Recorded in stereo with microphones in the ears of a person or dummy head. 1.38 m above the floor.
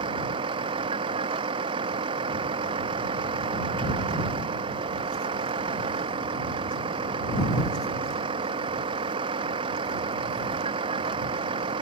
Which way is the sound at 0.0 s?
30° right (ahead or behind).